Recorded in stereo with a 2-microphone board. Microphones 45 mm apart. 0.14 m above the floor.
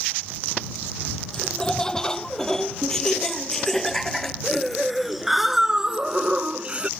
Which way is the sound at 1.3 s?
15° left (ahead or behind).